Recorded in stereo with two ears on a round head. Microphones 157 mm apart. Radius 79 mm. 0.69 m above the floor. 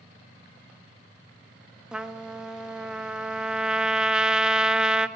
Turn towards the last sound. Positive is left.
turn(degrees=-5)  # may be behind; listen again after turning